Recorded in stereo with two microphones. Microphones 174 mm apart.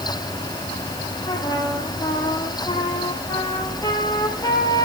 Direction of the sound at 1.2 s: 20° left (ahead or behind).